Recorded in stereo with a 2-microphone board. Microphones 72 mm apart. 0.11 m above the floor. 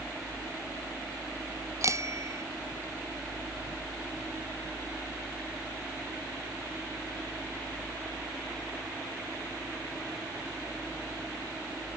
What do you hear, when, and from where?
1.8 s a bicycle bell: 45° right (ahead or behind)